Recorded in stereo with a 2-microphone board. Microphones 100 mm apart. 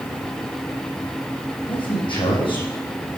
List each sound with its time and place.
1.7 s a man speaking: 60° left (ahead or behind), 6 m